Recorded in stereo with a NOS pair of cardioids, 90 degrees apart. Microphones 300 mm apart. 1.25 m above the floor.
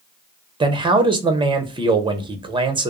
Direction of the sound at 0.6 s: 15° right.